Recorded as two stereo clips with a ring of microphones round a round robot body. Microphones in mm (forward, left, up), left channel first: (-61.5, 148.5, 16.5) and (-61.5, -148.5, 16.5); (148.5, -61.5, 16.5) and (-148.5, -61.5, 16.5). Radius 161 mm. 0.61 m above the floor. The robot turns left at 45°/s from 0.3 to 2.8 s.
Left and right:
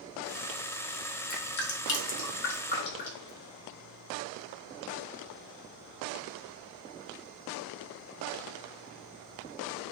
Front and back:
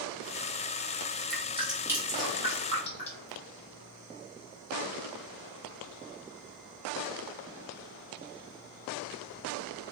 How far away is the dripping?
About 1.0 m.